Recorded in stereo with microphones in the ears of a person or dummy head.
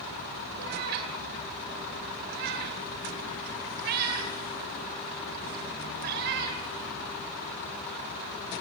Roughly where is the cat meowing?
Right.